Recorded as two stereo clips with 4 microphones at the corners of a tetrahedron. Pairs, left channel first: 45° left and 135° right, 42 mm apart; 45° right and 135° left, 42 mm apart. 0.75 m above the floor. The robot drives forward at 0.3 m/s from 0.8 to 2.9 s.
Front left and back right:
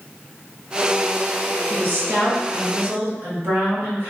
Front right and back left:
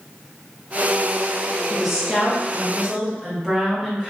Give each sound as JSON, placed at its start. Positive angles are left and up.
{"t": 1.7, "sound": "a woman speaking", "azimuth_deg": -145, "distance_m": 0.7}